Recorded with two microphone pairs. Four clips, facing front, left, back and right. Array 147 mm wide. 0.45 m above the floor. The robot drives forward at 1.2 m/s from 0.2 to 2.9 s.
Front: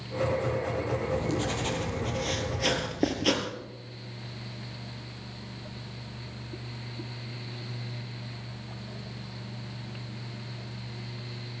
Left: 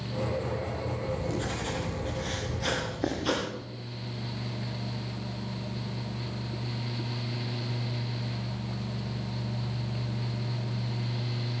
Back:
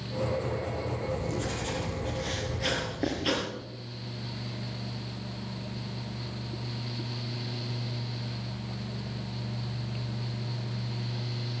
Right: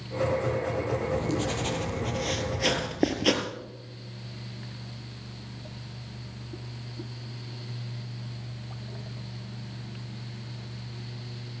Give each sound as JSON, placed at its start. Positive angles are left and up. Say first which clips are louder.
{"t": 1.0, "sound": "writing", "louder": "right 4 dB, front 3 dB", "azimuth_deg": -45, "distance_m": 3.5}